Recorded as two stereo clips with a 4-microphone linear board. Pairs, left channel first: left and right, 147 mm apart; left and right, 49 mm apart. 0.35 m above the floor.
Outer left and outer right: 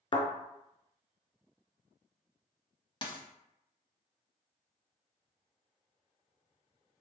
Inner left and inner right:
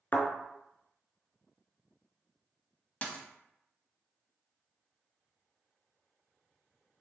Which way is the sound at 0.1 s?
40° left (ahead or behind).